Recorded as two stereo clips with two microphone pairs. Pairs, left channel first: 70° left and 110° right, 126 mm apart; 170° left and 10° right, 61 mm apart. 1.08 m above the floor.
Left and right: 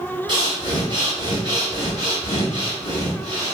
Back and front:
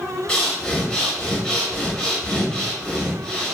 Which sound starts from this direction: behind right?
Breathing, at 0.3 s.